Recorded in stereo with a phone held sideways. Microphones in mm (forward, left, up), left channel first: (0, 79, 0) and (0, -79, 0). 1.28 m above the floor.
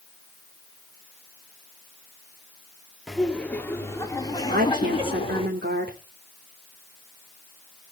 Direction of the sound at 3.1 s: Centre (ahead or behind).